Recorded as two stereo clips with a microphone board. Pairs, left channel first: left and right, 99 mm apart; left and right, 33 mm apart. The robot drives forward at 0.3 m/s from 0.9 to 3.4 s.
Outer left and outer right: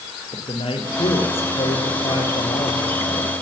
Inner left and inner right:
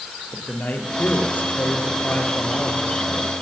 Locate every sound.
0.3 s a man speaking: 70° left (ahead or behind), 5.5 m; by 3.3 s 75° left (ahead or behind), 5.5 m